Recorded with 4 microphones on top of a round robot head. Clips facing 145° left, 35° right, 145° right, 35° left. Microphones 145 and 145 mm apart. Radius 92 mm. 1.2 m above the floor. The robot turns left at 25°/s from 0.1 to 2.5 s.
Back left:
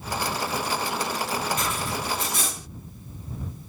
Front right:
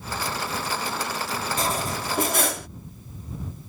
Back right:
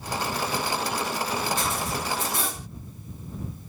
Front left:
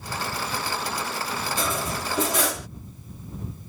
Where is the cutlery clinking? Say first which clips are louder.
Front right 2 dB, front left 1 dB; 25° left; by 2.7 s 5° left.